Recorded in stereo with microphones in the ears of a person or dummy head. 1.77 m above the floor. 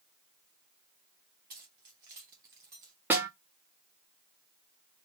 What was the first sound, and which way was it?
Keys jangling, 15° right (ahead or behind).